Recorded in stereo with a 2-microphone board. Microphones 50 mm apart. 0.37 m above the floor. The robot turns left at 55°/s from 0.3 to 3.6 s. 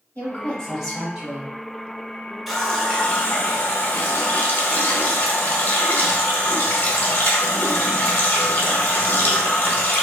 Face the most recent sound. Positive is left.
turn(degrees=125)